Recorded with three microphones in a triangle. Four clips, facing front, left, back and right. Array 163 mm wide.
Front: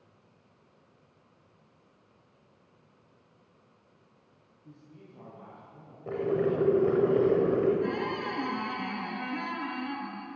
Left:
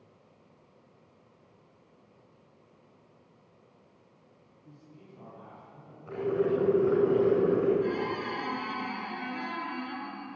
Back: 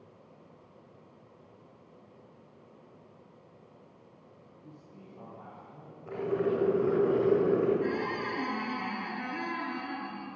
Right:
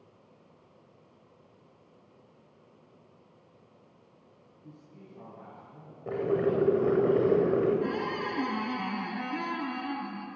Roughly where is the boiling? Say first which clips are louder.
Right 1 dB, front 2 dB; ahead right.